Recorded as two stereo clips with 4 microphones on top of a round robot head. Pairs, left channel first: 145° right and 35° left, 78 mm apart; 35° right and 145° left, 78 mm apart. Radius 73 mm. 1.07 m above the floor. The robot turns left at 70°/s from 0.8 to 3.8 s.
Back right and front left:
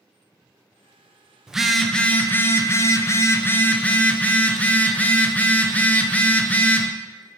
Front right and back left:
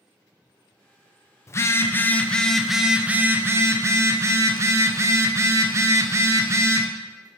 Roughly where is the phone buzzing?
Ahead right.